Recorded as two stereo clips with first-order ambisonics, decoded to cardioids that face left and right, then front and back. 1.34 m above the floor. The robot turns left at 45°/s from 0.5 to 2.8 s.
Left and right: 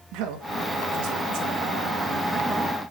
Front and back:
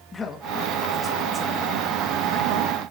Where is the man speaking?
75° right, 2 m; by 2.7 s 175° right, 2 m.